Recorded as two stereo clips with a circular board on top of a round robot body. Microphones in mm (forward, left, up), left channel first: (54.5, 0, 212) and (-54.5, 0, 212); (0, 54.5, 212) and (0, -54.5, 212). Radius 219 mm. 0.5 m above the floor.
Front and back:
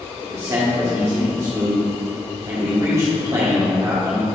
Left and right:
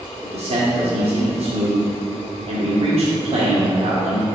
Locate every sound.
0.2 s a man speaking: 115° right, 1.6 m